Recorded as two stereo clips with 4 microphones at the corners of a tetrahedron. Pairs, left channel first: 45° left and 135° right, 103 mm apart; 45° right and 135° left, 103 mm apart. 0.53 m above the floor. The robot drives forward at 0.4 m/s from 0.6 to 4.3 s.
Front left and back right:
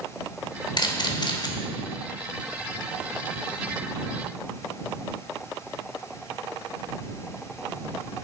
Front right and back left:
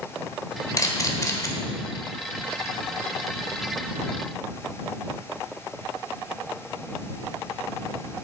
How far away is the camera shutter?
About 1.5 m.